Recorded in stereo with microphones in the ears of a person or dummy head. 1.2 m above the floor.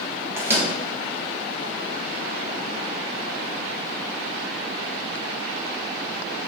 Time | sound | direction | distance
0.4 | a microwave | 20° right (ahead or behind) | 0.7 m